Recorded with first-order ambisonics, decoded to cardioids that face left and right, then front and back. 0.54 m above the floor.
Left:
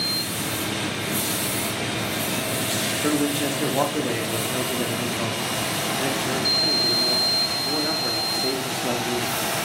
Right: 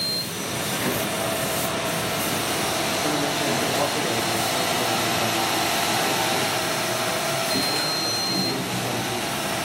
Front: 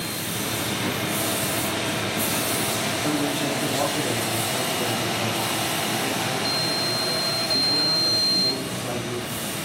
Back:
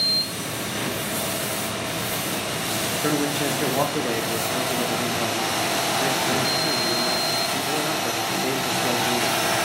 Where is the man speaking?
145° left, 0.7 m.